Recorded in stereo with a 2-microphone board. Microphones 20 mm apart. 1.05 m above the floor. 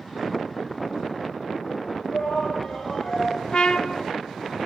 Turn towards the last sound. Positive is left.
turn(degrees=45)  # may be behind; listen again after turning